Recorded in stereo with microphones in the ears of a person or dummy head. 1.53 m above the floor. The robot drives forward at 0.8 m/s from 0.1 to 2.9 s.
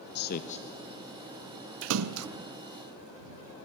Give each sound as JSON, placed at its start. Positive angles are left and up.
{"t": 0.1, "sound": "a man speaking", "side_deg": 55, "distance_m": 0.5}
{"t": 1.8, "sound": "a splash", "side_deg": -65, "distance_m": 0.8}